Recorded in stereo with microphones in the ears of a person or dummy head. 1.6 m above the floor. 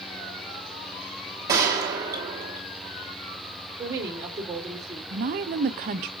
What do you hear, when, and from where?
1.5 s a gunshot: 10° right (ahead or behind), 1.1 m
3.8 s a woman speaking: 15° right (ahead or behind), 1.6 m
5.1 s a woman speaking: 35° right (ahead or behind), 0.5 m